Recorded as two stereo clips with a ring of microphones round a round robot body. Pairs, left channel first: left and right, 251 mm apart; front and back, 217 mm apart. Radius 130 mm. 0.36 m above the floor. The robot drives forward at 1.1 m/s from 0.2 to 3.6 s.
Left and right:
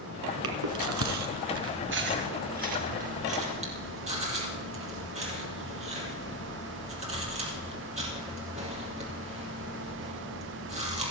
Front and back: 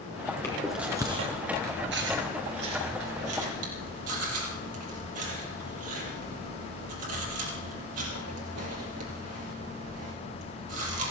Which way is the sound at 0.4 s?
80° right.